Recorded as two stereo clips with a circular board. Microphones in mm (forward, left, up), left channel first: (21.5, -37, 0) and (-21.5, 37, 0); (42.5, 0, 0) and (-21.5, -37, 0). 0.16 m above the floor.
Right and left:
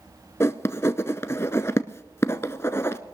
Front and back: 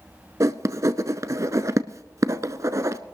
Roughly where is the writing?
Behind right.